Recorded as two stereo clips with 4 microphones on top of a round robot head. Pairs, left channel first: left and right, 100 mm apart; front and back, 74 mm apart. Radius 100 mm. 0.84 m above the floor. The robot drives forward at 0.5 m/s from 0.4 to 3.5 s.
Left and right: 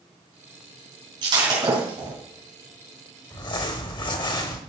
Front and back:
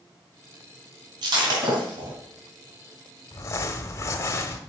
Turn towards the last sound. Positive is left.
turn(degrees=50)